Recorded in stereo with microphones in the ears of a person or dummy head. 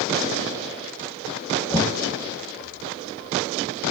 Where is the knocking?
15° left (ahead or behind), 1.0 m.